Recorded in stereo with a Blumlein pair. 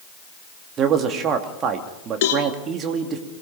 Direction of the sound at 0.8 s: 30° right.